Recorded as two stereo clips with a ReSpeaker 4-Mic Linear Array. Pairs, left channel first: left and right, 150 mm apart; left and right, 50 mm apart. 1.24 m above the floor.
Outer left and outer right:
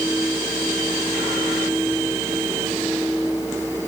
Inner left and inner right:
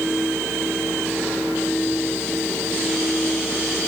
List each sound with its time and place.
Only background noise.